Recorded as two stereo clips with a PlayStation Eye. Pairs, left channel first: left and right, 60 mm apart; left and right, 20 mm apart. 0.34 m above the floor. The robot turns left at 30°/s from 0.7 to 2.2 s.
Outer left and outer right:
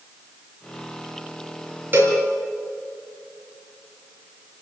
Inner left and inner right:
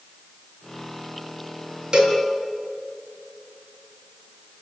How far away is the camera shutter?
I don't hear a camera shutter.